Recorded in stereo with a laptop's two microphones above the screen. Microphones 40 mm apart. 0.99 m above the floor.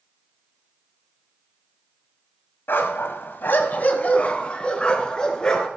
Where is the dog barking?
65° left (ahead or behind), 1.7 m; by 5.7 s 20° left (ahead or behind), 4.5 m.